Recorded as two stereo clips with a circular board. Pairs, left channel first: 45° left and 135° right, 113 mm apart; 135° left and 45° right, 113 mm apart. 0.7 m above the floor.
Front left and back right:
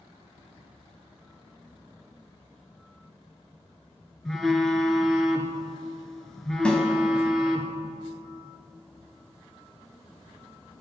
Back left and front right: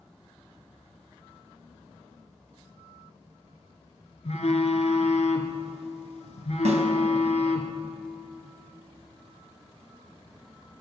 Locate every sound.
4.2 s a phone buzzing: 130° left, 1.6 m
6.7 s a snare drum: 35° right, 2.5 m